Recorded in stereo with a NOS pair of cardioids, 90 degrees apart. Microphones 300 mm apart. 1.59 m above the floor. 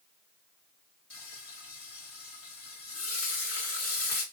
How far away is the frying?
About 1.6 m.